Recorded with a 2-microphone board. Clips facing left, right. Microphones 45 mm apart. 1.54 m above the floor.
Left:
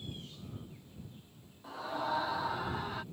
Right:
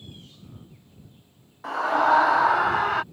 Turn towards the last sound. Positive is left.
turn(degrees=-70)  # may be behind; listen again after turning